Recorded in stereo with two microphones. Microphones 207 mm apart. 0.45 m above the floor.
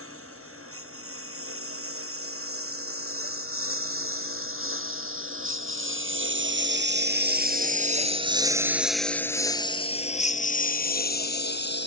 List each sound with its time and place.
0.0 s a lawn mower: 85° right; by 11.9 s 55° left (ahead or behind)